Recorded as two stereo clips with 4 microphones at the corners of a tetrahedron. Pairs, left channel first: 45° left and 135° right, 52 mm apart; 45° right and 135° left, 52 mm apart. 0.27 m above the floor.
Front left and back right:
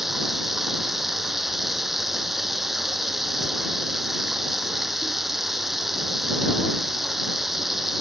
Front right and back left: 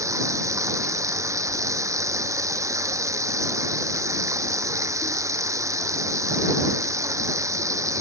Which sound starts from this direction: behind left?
Running water, at 0.0 s.